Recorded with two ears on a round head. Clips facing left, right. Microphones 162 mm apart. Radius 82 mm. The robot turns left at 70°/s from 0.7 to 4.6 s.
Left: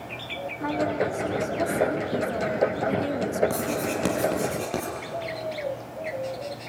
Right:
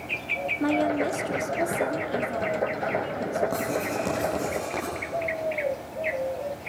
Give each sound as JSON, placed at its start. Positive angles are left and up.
{"t": 0.6, "sound": "a woman speaking", "azimuth_deg": -110, "distance_m": 1.4}
{"t": 3.5, "sound": "writing", "side_deg": 70, "distance_m": 6.0}